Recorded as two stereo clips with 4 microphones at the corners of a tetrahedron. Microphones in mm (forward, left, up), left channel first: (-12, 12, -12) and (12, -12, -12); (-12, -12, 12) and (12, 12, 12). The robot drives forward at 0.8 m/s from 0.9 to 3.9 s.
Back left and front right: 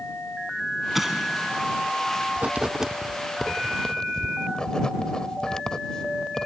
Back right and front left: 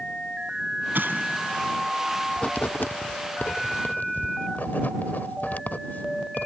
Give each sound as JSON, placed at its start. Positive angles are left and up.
{"t": 0.9, "sound": "an explosion", "azimuth_deg": 40}
{"t": 2.4, "sound": "writing", "azimuth_deg": -75}